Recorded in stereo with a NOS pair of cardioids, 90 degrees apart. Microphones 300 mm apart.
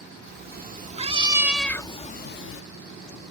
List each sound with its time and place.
0.3 s a cat meowing: 35° right; by 2.6 s 50° left